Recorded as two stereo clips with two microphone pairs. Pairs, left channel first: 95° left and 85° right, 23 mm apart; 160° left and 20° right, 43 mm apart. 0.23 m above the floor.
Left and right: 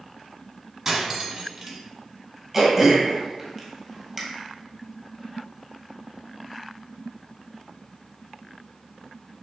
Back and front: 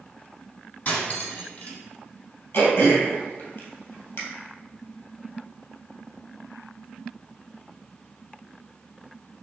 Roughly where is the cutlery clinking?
Behind.